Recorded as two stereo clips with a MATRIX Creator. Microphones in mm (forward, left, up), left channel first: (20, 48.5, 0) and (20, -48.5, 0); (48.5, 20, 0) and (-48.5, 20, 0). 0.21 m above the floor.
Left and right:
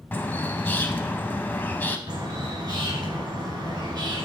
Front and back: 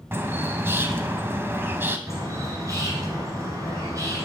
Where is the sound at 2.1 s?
130° right, 2.5 m.